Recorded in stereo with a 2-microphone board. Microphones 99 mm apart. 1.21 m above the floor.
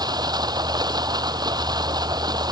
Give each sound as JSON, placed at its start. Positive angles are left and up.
{"t": 0.0, "sound": "running water", "side_deg": -40}